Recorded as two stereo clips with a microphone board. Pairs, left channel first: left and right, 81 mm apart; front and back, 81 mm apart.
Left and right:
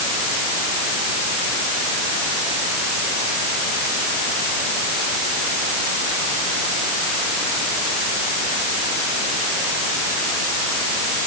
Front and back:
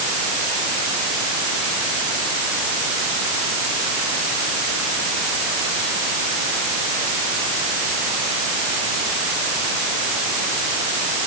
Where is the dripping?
I don't hear dripping.